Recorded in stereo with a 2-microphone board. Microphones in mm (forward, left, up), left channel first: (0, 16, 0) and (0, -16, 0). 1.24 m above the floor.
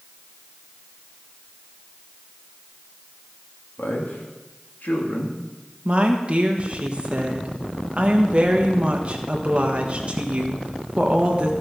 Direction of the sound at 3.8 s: 75° left (ahead or behind).